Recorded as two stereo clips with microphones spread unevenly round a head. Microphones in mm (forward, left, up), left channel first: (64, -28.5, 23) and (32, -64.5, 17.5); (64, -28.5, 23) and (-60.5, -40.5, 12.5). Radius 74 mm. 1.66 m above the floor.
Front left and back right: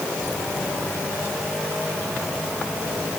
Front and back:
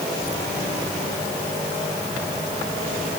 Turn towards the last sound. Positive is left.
No sound to turn to.